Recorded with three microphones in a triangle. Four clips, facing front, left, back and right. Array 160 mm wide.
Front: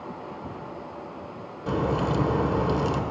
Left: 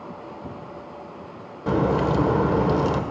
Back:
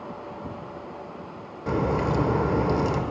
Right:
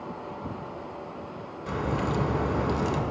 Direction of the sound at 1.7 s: 100° left.